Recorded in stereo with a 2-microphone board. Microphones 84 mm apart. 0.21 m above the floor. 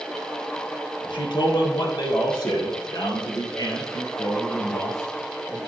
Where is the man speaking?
65° left (ahead or behind), 2.5 m; by 5.6 s 45° left (ahead or behind), 4 m.